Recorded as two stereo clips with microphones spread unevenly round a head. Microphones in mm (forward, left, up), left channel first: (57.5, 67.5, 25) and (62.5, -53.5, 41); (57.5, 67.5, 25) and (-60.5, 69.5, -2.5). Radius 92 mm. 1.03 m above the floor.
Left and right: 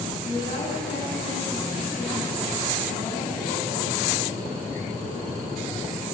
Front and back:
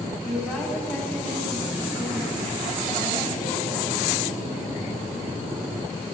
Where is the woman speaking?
75° left, 6.5 m.